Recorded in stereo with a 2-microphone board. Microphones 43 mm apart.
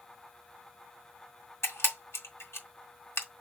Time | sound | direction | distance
1.6 | a camera shutter | 80° left | 2 m